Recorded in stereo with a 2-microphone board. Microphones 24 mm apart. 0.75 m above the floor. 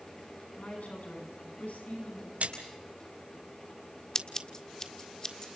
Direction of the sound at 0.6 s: 75° left (ahead or behind).